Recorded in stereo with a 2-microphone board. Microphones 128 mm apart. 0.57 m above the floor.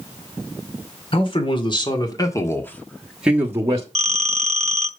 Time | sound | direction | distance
1.1 | a man speaking | 45° left (ahead or behind) | 2.5 m
4.0 | a phone ringing | 55° right (ahead or behind) | 0.7 m